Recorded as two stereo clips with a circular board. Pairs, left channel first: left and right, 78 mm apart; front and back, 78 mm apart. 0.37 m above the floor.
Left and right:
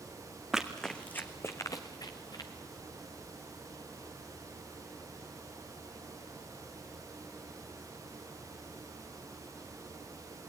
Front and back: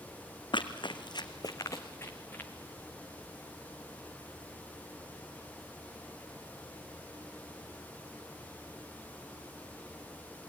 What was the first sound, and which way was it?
Running footsteps, 5° right.